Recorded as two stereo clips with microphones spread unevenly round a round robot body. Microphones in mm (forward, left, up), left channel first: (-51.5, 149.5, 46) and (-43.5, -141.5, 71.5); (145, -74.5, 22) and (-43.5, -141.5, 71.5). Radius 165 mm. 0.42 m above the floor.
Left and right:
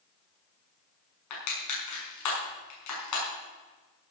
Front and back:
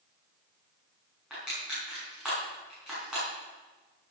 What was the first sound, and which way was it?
Crushing, 110° left.